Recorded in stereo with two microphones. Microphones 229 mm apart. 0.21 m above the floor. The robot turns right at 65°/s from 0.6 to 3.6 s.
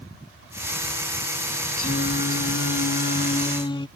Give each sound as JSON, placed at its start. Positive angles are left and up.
{"t": 1.8, "sound": "singing", "azimuth_deg": 40}